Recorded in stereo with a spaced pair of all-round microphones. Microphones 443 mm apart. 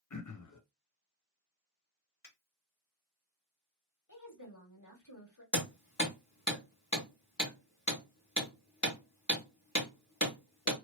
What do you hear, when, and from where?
0.1 s throat clearing: 45° left (ahead or behind), 0.5 m
2.2 s a finger snap: 55° left (ahead or behind), 1.6 m
4.1 s a woman speaking: 45° left (ahead or behind), 1.8 m
5.5 s hammering: 40° left (ahead or behind), 1.7 m